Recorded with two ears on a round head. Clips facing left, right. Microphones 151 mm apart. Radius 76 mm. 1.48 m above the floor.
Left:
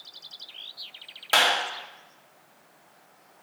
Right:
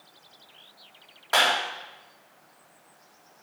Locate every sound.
1.3 s a clap: 35° left (ahead or behind), 2.5 m